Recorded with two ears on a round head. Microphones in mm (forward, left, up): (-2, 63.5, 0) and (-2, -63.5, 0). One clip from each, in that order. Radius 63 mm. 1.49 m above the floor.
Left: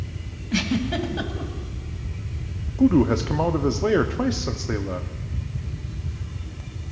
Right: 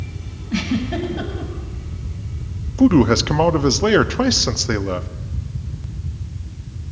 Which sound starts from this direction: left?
A giggle, at 0.5 s.